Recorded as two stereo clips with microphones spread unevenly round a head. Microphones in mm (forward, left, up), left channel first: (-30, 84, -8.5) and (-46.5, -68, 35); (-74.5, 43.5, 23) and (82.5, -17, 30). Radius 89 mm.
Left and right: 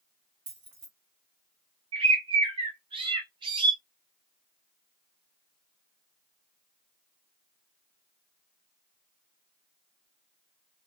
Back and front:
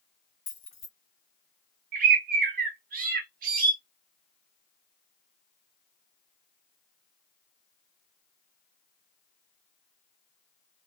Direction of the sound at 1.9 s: 55° right.